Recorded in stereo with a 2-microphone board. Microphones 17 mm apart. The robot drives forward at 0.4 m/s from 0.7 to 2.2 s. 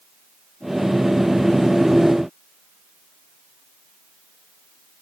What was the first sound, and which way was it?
Only background noise.